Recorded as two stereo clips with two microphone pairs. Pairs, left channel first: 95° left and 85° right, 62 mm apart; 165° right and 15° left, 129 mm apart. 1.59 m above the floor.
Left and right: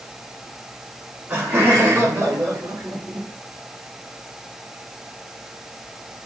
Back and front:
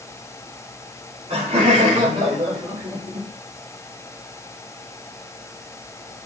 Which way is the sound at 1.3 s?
25° right.